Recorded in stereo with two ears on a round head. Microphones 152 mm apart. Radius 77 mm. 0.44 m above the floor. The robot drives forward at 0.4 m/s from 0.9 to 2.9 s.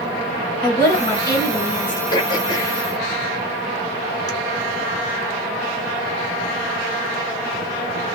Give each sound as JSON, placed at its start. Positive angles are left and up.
{"t": 0.6, "sound": "a woman speaking", "side_deg": 20, "distance_m": 1.6}
{"t": 2.1, "sound": "throat clearing", "side_deg": 30, "distance_m": 1.1}